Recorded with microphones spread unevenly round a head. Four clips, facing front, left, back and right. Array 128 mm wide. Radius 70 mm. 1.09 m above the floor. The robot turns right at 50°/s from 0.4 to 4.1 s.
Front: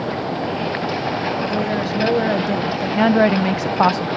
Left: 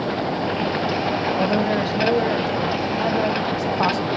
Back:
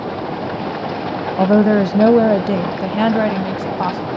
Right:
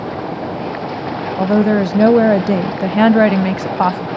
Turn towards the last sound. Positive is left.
turn(degrees=-20)